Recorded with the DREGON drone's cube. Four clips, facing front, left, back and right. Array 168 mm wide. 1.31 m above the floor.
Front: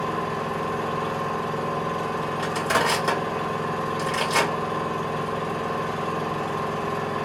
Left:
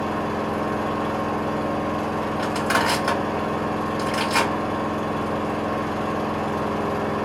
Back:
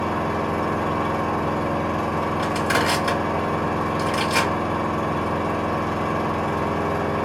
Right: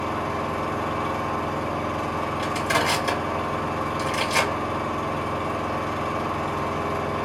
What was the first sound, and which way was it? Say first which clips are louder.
An engine running: left 2 dB, back 3 dB; 150° left.